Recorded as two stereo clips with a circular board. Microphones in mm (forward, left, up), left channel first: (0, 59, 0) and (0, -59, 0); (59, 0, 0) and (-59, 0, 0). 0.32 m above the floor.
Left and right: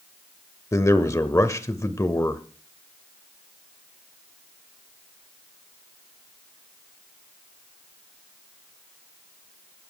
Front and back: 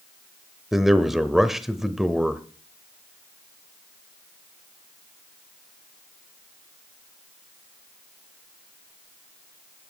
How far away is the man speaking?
About 0.9 m.